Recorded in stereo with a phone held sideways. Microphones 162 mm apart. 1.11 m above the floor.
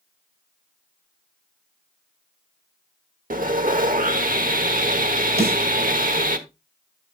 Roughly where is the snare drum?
Right.